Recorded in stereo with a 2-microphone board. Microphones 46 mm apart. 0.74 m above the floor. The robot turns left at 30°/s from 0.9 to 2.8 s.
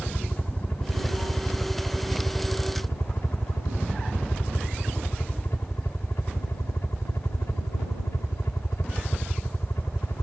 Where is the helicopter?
135° left; by 10.2 s 80° left.